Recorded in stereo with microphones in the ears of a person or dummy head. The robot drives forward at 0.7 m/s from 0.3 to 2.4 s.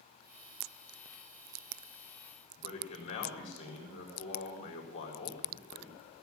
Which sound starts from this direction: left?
A man speaking, at 2.6 s.